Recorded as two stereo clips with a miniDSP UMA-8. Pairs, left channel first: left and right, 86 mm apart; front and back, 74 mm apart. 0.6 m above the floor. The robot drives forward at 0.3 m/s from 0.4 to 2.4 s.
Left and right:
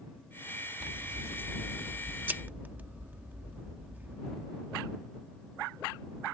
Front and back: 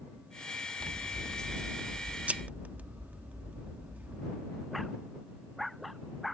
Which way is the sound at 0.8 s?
60° right.